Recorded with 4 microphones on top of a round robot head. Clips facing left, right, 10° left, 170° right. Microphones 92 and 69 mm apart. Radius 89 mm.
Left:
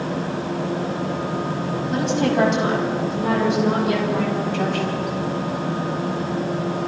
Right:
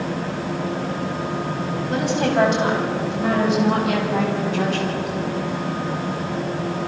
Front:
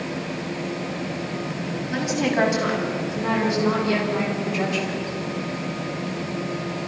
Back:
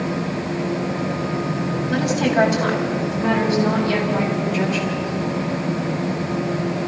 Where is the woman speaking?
125° right, 6.5 m; by 5.1 s 105° right, 8.5 m.